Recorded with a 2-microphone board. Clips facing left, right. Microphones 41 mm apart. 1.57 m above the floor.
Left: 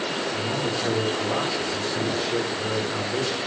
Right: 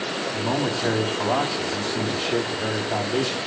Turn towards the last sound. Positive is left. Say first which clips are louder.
# right 2 dB
turn(degrees=-40)  # may be behind; listen again after turning